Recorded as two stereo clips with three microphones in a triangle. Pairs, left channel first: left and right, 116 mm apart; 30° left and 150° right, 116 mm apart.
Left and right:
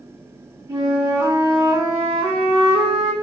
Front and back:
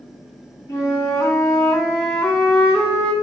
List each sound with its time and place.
0.7 s a flute: 35° right, 1.4 m